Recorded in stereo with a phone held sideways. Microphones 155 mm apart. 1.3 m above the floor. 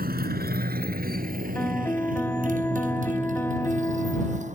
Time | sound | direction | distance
0.0 | a motorcycle | 75° right (ahead or behind) | ?
1.6 | a piano | 15° left (ahead or behind) | ?